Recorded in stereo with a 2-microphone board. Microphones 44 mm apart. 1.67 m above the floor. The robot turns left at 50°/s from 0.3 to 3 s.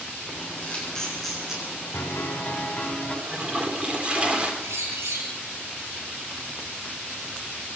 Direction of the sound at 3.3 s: 25° right (ahead or behind).